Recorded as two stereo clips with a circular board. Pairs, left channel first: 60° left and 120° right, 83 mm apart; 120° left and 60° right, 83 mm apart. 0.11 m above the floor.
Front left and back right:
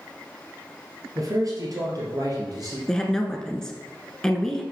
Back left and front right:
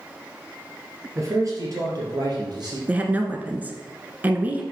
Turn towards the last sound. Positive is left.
turn(degrees=-15)